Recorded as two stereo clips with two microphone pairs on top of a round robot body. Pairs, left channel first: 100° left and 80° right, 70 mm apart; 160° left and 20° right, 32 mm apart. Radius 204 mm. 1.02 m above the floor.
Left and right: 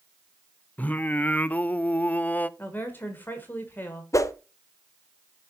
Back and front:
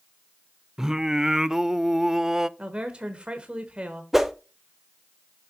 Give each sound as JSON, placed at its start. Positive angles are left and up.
{"t": 0.8, "sound": "singing", "azimuth_deg": 45, "distance_m": 0.6}
{"t": 2.6, "sound": "a woman speaking", "azimuth_deg": 40, "distance_m": 1.4}
{"t": 4.1, "sound": "a whoosh", "azimuth_deg": 60, "distance_m": 0.9}